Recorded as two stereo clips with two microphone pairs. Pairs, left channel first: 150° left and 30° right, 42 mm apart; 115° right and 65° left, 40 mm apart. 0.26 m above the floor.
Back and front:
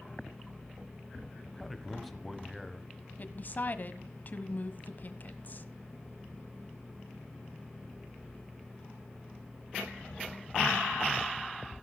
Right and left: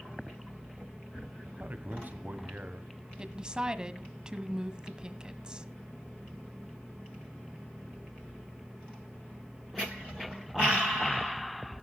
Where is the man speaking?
65° left, 1.4 m.